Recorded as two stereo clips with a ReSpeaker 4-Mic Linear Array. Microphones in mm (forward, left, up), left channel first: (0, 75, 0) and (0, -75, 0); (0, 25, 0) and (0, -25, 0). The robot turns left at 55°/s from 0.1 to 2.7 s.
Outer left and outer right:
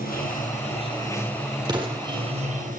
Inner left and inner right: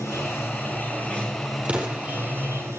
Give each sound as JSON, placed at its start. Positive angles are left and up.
{"t": 0.0, "sound": "running water", "azimuth_deg": 75, "distance_m": 6.5}
{"t": 1.6, "sound": "an explosion", "side_deg": -25, "distance_m": 5.0}